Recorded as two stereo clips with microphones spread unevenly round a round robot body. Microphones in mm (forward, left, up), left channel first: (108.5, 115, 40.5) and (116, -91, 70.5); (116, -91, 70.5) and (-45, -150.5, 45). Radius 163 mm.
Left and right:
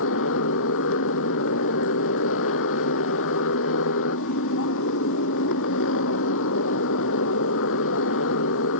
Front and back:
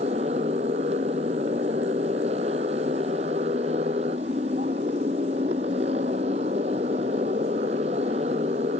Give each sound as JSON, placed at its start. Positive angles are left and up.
{"t": 0.0, "sound": "a motorcycle", "azimuth_deg": 130}